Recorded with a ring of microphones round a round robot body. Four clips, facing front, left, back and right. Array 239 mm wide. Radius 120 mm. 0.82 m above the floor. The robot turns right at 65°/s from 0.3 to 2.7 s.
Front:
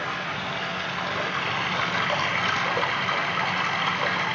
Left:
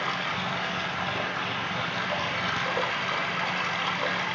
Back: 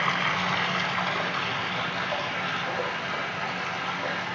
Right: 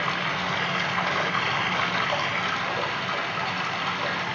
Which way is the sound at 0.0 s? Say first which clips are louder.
Right 3 dB, back 4 dB; 145° right.